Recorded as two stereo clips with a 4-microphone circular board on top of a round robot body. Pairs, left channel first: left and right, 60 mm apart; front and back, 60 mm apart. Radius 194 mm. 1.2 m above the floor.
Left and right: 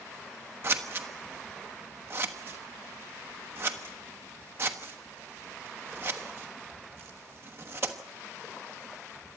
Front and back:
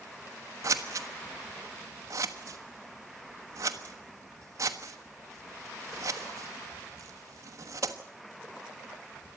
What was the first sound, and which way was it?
Scissors, 140° right.